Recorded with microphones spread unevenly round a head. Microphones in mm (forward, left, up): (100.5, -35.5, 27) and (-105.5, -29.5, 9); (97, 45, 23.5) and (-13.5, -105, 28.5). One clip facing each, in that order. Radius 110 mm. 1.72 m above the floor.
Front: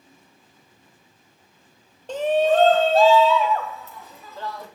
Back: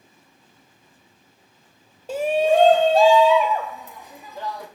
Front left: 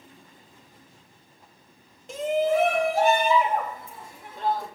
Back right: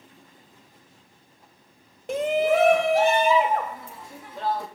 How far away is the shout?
About 0.8 m.